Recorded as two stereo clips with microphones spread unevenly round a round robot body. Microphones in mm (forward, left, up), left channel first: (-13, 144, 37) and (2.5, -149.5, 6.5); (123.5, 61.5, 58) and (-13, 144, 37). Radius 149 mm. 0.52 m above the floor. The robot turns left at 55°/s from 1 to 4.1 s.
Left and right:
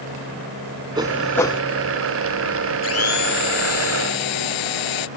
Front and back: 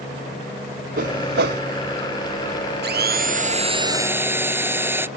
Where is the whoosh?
165° right; by 1.6 s 165° left.